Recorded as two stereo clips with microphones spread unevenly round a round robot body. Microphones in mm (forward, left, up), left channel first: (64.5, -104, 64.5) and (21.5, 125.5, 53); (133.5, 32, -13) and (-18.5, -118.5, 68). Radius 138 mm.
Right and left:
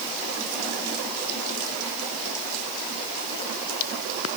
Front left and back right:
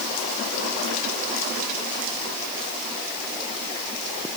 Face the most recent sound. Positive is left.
No sound to turn to.